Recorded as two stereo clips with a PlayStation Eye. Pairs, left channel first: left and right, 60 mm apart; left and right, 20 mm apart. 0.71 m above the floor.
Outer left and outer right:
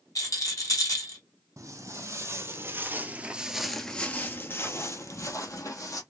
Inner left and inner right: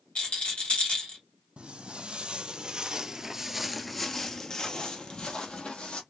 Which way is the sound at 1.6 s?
60° right (ahead or behind).